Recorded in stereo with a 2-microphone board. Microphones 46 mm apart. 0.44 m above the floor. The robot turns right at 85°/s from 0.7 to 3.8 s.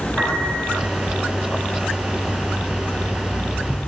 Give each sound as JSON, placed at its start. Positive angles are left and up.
{"t": 0.2, "sound": "a piano", "side_deg": 15, "distance_m": 3.0}